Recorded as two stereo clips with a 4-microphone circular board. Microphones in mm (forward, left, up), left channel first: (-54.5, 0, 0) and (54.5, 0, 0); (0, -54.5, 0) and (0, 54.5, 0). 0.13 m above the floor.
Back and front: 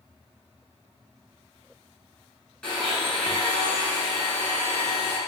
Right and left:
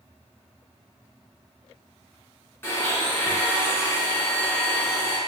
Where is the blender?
110° right, 1.1 m.